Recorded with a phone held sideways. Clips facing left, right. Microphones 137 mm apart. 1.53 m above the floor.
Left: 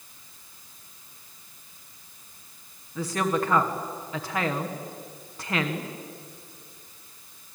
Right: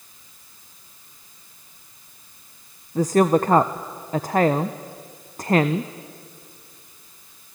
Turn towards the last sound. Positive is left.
turn(degrees=-40)  # may be behind; listen again after turning